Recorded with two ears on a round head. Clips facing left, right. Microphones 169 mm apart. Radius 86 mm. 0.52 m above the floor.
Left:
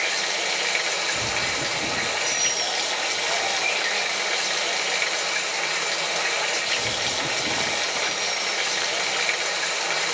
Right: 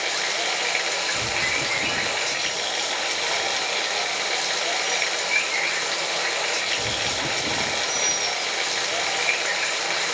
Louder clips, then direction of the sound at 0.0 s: Right 1 dB; centre (ahead or behind).